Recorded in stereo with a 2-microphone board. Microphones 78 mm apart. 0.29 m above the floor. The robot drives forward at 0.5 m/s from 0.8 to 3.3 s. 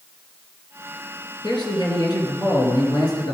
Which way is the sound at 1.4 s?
65° left (ahead or behind).